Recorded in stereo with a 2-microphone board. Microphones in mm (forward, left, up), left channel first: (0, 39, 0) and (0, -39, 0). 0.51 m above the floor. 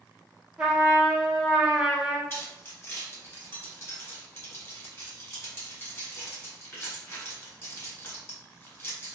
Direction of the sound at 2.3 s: 35° left (ahead or behind).